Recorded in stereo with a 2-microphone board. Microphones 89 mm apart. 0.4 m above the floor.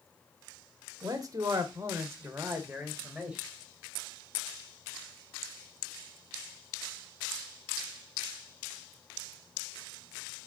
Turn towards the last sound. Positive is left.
turn(degrees=-10)  # may be behind; listen again after turning